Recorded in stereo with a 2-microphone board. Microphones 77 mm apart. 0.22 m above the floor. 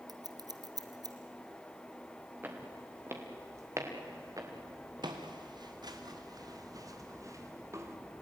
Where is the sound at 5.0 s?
65° right (ahead or behind), 3 m; by 8.0 s 35° right (ahead or behind), 3 m.